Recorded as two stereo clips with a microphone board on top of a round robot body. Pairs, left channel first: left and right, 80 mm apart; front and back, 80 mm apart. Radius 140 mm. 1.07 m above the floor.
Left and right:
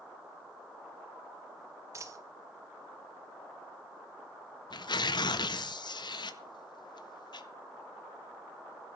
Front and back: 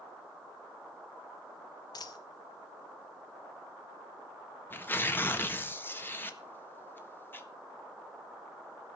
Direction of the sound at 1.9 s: 40° right.